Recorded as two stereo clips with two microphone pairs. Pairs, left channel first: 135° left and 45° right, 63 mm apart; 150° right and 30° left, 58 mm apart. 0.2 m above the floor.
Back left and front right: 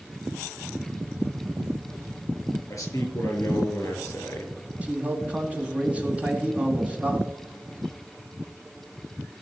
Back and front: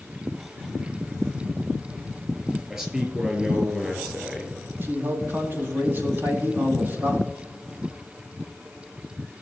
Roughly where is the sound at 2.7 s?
Left.